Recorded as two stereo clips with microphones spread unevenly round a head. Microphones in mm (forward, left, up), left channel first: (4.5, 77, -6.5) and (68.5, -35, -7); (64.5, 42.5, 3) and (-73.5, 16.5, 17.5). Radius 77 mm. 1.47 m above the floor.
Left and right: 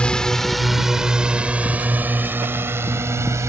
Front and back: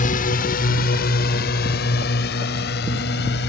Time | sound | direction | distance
0.0 | a drone | 35° left | ?